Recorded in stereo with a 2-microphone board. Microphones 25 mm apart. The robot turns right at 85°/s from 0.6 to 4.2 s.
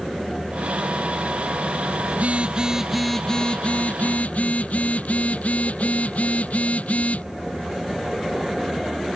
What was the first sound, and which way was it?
A phone buzzing, 75° right.